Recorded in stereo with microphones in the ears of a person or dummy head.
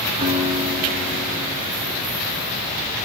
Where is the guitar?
30° right (ahead or behind), 6 m.